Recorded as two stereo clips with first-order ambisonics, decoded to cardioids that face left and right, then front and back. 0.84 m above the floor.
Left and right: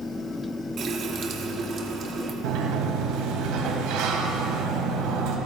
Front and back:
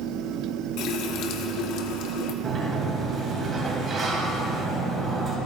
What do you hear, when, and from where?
0.8 s a running tap: 30° right, 1.2 m
2.4 s a sliding door: 115° right, 2 m